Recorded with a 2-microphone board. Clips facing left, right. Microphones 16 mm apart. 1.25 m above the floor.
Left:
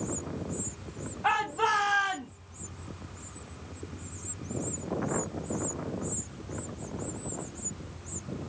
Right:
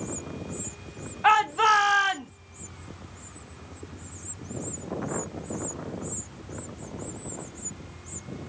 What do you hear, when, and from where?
1.2 s a shout: 40° right (ahead or behind), 0.6 m